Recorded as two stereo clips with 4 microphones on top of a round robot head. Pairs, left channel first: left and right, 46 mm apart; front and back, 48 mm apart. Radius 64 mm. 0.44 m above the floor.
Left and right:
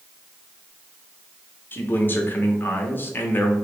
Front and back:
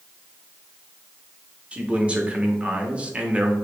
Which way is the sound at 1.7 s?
120° left.